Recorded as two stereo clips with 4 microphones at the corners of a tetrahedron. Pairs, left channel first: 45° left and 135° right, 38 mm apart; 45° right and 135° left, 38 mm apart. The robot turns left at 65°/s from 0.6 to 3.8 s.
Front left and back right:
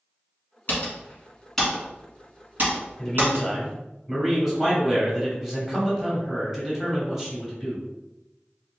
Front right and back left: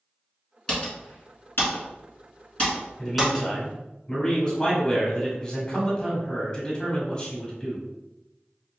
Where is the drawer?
I don't hear a drawer.